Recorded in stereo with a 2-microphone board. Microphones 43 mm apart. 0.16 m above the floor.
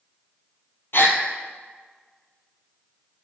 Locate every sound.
0.9 s a gasp: 60° left (ahead or behind), 0.7 m